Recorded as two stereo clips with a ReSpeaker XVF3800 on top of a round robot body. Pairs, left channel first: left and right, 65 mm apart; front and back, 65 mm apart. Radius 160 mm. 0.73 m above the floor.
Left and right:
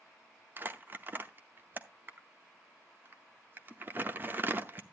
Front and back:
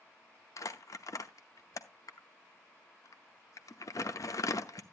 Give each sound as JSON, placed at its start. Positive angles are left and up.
{"t": 0.6, "sound": "crumpling", "azimuth_deg": -30, "distance_m": 0.8}